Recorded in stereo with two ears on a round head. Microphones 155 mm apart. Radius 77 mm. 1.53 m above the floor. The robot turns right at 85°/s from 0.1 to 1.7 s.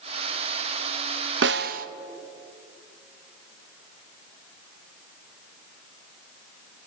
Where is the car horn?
I don't hear a car horn.